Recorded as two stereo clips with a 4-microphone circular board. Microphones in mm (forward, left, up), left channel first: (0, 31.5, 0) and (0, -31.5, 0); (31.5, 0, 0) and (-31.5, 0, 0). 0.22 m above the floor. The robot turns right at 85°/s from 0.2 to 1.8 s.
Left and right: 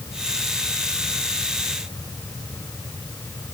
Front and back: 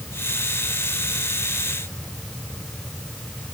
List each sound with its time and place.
Only background noise.